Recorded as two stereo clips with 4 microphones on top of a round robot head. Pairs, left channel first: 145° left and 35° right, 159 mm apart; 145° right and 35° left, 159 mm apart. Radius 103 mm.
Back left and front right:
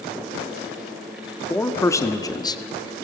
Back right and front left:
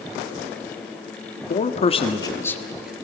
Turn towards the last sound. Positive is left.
turn(degrees=110)